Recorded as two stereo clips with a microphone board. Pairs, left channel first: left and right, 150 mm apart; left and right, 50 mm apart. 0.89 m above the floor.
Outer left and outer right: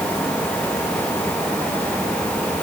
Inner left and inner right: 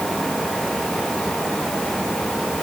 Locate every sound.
Only background noise.